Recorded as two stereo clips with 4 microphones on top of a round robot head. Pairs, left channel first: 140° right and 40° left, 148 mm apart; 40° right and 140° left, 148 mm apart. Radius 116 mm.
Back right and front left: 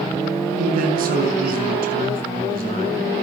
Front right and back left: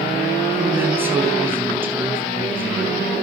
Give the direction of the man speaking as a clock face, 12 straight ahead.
10 o'clock.